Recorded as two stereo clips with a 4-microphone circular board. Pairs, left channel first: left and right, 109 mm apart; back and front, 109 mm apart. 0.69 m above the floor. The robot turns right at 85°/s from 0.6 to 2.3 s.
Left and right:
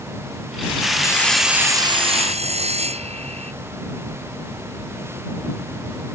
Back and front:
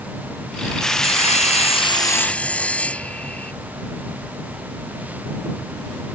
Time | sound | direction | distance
1.0 | sawing | 150° left | ?